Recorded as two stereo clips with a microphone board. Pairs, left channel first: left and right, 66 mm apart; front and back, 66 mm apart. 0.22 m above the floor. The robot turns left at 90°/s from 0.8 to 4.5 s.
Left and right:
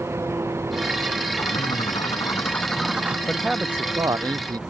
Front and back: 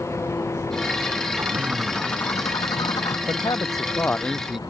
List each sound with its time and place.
0.0 s an engine running: 40° right; by 4.7 s 15° right
1.4 s a bird: 130° left; by 3.2 s 30° right
3.3 s a man speaking: 15° left; by 4.6 s 95° right